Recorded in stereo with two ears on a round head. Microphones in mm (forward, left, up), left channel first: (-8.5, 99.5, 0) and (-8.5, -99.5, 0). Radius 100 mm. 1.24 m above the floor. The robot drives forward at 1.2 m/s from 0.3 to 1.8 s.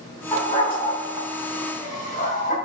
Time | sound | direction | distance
0.3 | a dog barking | 20° left (ahead or behind) | 4.5 m